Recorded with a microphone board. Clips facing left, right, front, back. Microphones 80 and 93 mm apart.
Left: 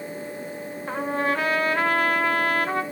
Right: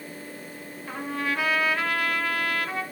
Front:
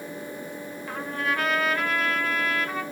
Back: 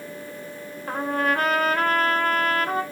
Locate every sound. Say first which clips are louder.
0.9 s a trumpet: left 5 dB, back 6 dB; 135° left, 1.0 m